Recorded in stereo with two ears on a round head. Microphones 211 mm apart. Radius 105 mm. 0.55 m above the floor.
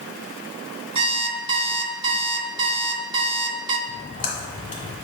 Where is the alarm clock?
25° right (ahead or behind), 0.8 m.